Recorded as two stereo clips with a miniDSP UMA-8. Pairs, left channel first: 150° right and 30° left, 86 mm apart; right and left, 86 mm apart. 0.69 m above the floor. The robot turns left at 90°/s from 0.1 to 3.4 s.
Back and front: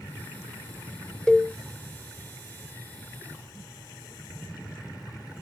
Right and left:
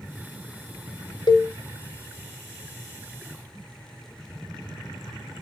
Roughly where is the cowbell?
Right.